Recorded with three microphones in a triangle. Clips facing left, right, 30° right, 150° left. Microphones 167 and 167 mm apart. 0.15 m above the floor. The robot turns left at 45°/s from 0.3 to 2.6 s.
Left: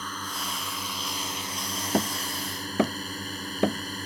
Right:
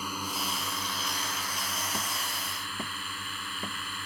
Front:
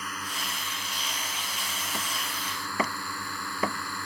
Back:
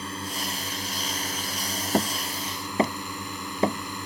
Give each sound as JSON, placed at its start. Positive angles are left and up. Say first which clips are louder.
{"t": 0.0, "sound": "a drone", "louder": "right 1 dB, back 5 dB", "azimuth_deg": -165}
{"t": 1.9, "sound": "hammering", "louder": "left 10 dB, back 13 dB", "azimuth_deg": 115}